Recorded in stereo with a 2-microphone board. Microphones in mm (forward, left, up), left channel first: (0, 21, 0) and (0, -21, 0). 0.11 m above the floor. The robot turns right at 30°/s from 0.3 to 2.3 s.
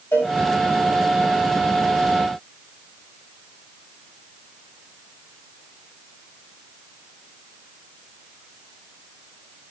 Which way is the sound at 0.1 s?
75° left (ahead or behind).